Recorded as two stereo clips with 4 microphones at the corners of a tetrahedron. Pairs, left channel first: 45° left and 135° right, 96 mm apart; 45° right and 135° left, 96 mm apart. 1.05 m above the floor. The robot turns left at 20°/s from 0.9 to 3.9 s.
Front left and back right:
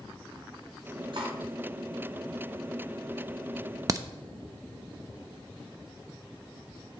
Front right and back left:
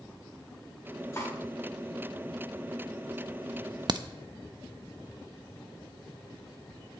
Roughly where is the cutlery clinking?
Right.